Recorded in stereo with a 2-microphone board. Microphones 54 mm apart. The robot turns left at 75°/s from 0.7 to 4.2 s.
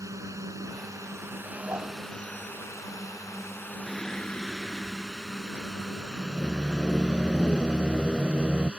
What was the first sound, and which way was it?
A drone, 75° right (ahead or behind).